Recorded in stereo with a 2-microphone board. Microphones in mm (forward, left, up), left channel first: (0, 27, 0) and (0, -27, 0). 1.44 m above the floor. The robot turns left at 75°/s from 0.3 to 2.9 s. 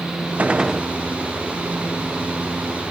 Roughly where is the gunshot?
Behind right.